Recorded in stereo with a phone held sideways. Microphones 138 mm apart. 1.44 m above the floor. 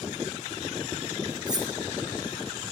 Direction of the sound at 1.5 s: 30° right (ahead or behind).